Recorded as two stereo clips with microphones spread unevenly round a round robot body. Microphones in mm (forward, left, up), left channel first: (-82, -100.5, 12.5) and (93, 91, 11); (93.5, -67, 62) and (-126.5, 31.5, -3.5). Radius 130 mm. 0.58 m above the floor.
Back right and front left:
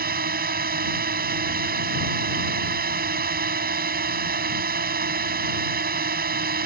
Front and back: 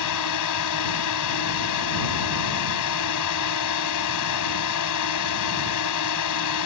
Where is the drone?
10° right.